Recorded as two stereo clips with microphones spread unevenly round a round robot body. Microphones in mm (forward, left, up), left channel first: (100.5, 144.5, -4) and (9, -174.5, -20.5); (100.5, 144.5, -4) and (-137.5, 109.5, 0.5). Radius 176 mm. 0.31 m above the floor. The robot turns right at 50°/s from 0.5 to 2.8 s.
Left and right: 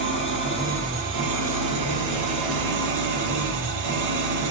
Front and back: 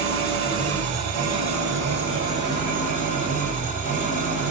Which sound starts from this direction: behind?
An engine running, at 0.0 s.